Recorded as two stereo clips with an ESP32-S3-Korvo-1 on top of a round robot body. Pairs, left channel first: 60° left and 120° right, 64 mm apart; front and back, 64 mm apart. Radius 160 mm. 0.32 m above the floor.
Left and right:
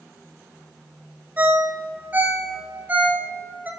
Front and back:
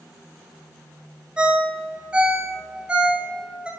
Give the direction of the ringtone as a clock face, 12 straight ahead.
4 o'clock.